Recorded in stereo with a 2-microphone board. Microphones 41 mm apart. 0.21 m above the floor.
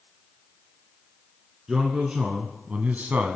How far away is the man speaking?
About 2 m.